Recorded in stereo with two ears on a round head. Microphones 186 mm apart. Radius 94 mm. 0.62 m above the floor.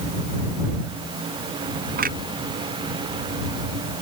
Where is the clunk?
45° right (ahead or behind).